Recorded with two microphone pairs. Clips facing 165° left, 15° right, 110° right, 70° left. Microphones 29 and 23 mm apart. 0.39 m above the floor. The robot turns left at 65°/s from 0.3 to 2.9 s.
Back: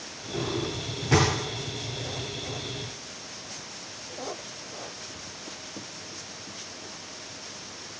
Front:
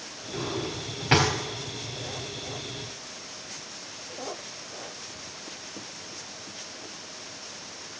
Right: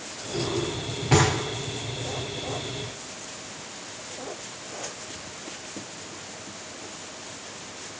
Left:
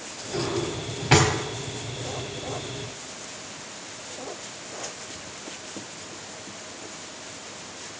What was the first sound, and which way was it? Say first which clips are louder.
A drawer: back 2 dB, even; 75° left.